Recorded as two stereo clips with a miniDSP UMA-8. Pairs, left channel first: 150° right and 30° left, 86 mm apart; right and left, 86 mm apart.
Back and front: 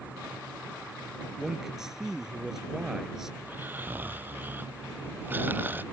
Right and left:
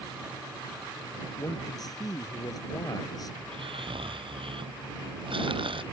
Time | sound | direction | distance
1.4 | a man speaking | 55° right | ?
3.4 | snoring | 95° left | ?